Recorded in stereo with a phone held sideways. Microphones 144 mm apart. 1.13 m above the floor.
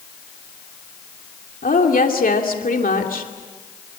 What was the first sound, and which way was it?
A woman speaking, 80° left.